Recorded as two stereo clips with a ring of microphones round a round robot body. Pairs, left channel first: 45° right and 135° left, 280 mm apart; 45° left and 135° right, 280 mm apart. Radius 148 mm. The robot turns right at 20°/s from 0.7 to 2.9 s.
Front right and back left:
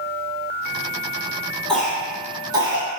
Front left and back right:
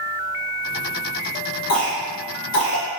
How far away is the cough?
About 1.4 m.